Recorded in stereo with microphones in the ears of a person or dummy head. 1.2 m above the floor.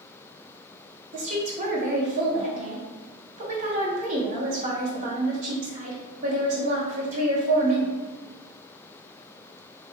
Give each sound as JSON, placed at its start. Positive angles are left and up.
{"t": 1.1, "sound": "a woman speaking", "side_deg": -40, "distance_m": 0.9}